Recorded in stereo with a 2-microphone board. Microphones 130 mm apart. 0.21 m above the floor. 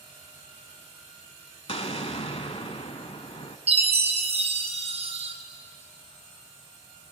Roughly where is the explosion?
Left.